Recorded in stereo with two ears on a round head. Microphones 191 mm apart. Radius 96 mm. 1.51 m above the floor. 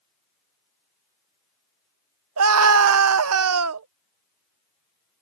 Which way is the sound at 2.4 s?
75° right (ahead or behind).